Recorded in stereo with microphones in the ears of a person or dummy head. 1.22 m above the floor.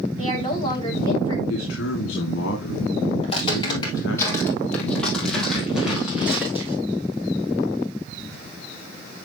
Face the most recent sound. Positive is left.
turn(degrees=-10)  # may be behind; listen again after turning